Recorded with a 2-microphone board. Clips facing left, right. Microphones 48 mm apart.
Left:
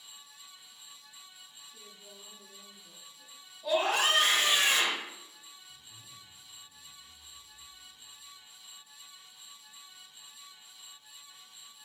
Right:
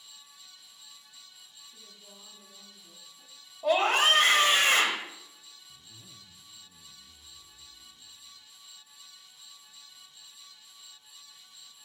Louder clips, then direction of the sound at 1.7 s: Left 1 dB; 65° right (ahead or behind).